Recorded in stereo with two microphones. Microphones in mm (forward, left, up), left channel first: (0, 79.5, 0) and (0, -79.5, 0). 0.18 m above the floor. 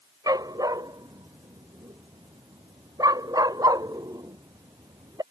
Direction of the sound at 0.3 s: 25° right (ahead or behind).